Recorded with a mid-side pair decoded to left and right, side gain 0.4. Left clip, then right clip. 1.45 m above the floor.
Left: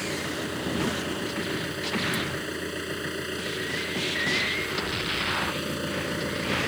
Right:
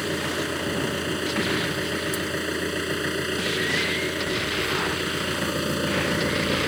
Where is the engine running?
40° right.